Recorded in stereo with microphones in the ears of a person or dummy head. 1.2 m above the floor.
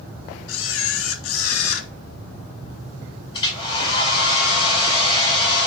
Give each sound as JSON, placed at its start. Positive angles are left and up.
{"t": 0.5, "sound": "a camera shutter", "side_deg": 70, "distance_m": 1.7}
{"t": 3.3, "sound": "a hair dryer", "side_deg": 30, "distance_m": 5.0}